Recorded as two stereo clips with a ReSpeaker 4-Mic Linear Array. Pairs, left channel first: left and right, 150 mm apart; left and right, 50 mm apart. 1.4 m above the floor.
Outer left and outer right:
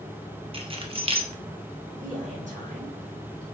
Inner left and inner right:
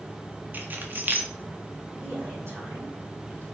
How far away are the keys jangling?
About 1.3 m.